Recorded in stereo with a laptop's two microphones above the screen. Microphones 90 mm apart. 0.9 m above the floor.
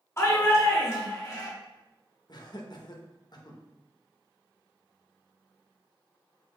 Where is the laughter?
50° left (ahead or behind), 0.6 m.